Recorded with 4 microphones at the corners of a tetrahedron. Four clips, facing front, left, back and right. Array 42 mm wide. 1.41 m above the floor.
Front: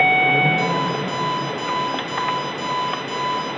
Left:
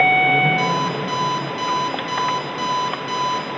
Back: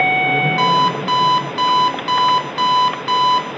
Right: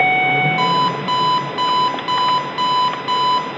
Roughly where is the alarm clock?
Behind right.